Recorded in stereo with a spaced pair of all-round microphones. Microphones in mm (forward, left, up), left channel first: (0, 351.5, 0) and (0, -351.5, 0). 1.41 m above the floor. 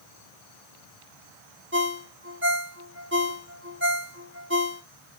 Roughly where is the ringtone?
Centre.